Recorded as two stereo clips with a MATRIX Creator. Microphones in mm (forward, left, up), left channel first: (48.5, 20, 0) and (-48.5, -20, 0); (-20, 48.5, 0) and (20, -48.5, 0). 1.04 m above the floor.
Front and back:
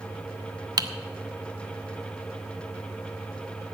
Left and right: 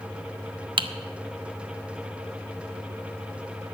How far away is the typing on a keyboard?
About 1.0 m.